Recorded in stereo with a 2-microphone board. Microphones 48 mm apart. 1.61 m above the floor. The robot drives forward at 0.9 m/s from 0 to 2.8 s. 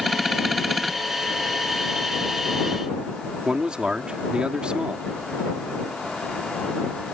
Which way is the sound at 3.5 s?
20° right (ahead or behind).